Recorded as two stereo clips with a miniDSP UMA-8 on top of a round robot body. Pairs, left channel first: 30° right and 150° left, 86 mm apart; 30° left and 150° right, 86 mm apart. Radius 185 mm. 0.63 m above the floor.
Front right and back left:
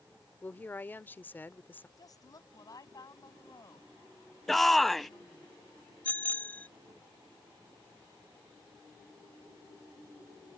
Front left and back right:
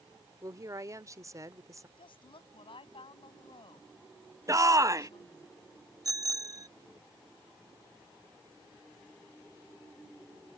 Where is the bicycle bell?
105° right.